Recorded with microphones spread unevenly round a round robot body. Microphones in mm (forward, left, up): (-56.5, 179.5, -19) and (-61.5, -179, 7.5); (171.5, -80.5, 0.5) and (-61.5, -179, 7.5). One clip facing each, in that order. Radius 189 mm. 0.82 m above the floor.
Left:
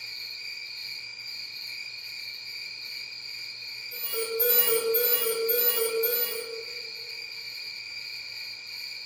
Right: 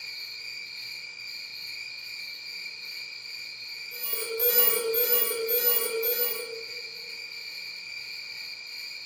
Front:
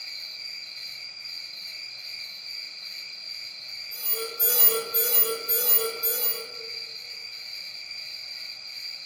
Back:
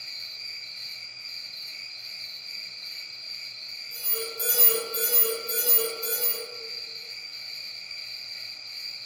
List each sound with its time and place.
0.0 s an insect: 135° left, 1.8 m
3.9 s an alarm: 155° right, 1.1 m